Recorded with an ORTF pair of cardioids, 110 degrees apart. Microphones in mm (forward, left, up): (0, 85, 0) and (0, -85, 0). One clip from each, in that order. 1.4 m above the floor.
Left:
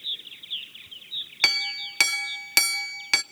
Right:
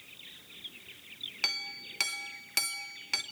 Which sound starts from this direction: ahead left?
A clink, at 1.4 s.